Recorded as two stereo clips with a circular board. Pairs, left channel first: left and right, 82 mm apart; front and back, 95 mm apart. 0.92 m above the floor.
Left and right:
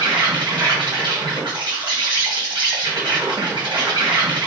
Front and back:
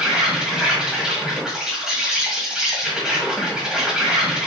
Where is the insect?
95° right, 1.5 m.